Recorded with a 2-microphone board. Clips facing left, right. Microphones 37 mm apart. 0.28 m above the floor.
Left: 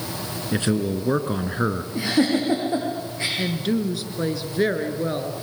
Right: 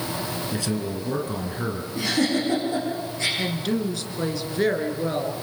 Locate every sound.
0.5 s a man speaking: 40° left (ahead or behind), 3 m
1.9 s a giggle: 20° left (ahead or behind), 9 m
3.4 s a woman speaking: 10° left (ahead or behind), 3.5 m